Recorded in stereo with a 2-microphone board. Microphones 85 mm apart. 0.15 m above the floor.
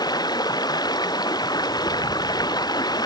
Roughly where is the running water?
Left.